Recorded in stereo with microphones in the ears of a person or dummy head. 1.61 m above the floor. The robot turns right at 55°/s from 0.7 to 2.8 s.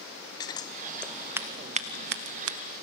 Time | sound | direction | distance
0.4 | scissors | 15° left (ahead or behind) | 0.8 m